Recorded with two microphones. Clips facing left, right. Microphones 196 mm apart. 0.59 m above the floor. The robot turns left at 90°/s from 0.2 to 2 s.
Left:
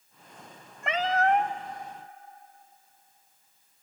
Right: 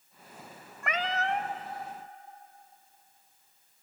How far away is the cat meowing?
About 1.1 m.